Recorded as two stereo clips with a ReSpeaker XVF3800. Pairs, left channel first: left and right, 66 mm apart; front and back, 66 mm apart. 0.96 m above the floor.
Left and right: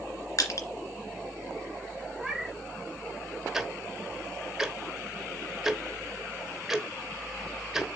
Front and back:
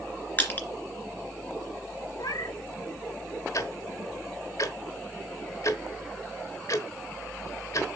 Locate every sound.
0.4 s crushing: 60° left, 2 m
2.2 s a cat meowing: 5° right, 1.5 m
3.5 s ticking: 5° right, 1.0 m